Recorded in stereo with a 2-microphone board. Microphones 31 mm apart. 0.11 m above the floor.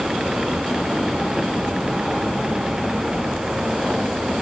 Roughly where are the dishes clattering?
No dishes clattering in this recording.